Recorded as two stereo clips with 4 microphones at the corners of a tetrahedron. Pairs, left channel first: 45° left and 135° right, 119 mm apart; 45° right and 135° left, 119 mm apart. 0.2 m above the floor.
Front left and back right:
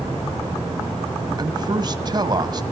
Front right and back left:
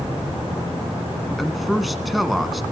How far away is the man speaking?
About 1.7 m.